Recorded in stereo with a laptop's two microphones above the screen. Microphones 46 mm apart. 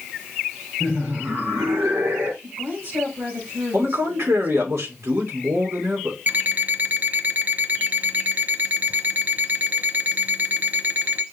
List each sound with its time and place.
0.8 s laughter: 75° right (ahead or behind), 3.5 m; by 2.3 s 80° right, 2.5 m
2.4 s a woman speaking: 50° right (ahead or behind), 4 m
3.7 s a man speaking: 80° right, 2.5 m
6.3 s an alarm clock: 40° right (ahead or behind), 0.7 m